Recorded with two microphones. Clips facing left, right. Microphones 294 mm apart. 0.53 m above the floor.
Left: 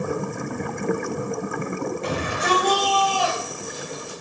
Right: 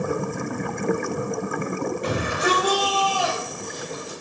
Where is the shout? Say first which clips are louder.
Right 2 dB; 15° right (ahead or behind), 3.5 m; by 4.2 s 15° left (ahead or behind), 3 m.